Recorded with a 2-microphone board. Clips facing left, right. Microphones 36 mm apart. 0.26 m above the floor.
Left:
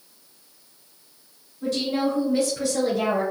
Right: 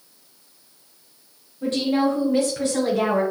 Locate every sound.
1.6 s a woman speaking: 40° right (ahead or behind), 1.4 m